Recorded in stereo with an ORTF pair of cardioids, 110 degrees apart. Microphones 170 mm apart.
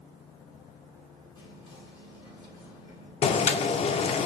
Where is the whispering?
30° left, 3.5 m.